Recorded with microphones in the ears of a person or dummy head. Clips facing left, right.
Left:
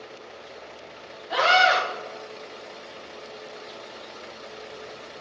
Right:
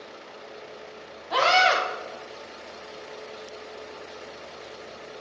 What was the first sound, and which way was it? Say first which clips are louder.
A scream: left 1 dB; 15° left (ahead or behind).